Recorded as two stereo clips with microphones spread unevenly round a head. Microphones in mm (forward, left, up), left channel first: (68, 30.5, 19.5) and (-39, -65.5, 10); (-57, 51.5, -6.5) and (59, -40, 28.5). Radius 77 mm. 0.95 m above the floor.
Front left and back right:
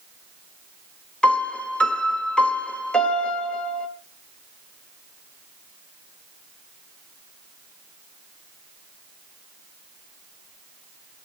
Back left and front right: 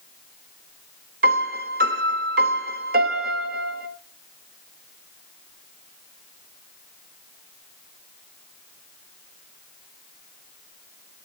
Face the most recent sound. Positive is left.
turn(degrees=-40)